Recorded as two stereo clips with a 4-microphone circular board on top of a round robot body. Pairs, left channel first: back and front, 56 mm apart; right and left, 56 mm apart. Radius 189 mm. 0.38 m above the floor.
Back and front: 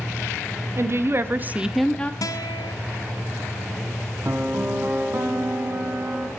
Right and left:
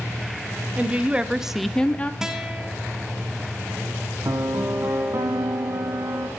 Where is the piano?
55° left, 1.2 m.